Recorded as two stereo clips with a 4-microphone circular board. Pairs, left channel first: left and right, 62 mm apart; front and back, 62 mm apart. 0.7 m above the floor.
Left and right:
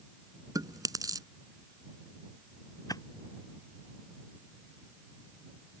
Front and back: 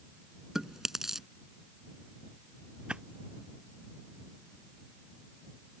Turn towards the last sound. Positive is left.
turn(degrees=105)